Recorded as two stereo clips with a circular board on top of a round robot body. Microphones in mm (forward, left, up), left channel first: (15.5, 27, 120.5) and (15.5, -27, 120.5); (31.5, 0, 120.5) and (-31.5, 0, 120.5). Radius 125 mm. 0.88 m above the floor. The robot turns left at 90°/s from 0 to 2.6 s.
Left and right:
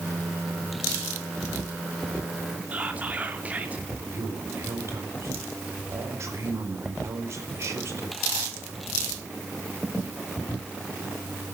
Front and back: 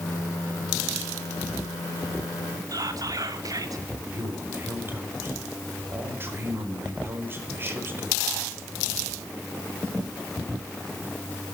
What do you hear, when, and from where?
2.7 s whispering: 155° right, 2.5 m
4.1 s a man speaking: 125° right, 4.5 m